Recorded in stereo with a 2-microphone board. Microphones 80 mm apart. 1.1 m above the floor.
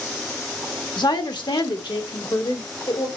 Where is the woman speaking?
65° left (ahead or behind), 1.5 m; by 3.1 s 85° left, 3 m.